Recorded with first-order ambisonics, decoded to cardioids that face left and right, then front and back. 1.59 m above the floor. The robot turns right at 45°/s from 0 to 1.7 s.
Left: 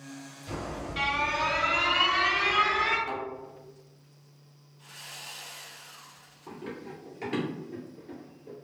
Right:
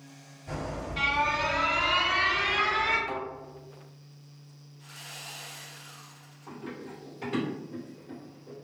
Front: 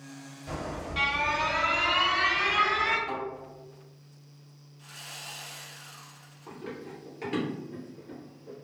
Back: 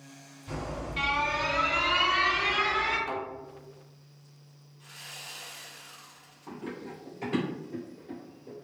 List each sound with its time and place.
0.5 s an alarm: 5° left, 1.8 m; by 3.0 s 60° left, 1.8 m
3.1 s a thud: 145° left, 1.4 m
4.8 s sawing: 5° left, 1.5 m
6.5 s running footsteps: 50° left, 1.9 m; by 8.5 s 115° left, 1.6 m